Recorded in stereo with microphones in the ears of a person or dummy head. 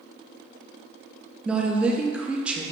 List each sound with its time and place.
1.4 s a woman speaking: 5° right (ahead or behind), 0.5 m